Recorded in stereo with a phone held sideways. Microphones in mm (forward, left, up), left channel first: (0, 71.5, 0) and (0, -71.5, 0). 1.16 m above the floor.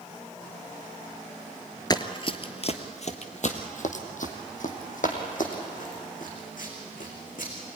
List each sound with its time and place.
1.9 s running footsteps: 30° left (ahead or behind), 1.2 m; by 7.5 s 70° left (ahead or behind), 5.5 m